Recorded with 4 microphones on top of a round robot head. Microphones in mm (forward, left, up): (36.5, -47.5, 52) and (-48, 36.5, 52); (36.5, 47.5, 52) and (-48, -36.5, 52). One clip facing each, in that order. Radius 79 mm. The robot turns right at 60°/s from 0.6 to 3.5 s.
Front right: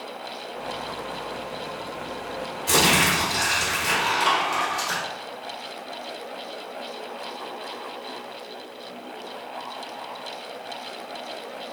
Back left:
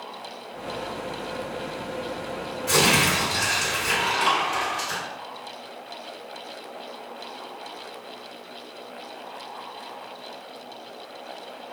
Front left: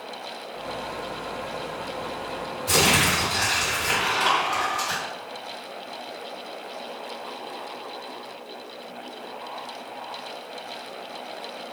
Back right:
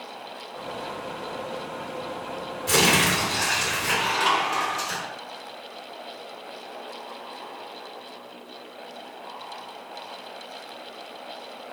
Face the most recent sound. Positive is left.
turn(degrees=-60)